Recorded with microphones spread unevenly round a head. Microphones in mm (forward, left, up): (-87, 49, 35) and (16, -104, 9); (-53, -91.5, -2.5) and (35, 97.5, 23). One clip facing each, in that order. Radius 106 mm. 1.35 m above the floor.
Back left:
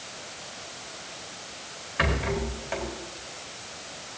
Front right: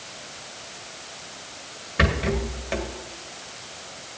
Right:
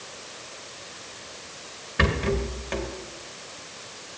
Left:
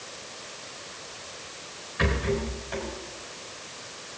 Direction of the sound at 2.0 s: 100° right.